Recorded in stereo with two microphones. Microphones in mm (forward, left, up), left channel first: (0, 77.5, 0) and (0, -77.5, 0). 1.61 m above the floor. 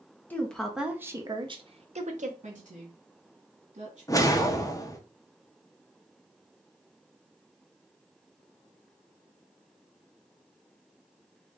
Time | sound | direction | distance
0.3 | a woman speaking | 10° left (ahead or behind) | 0.8 m
2.4 | a woman speaking | 50° right (ahead or behind) | 1.2 m
4.1 | a whoosh | 20° left (ahead or behind) | 0.6 m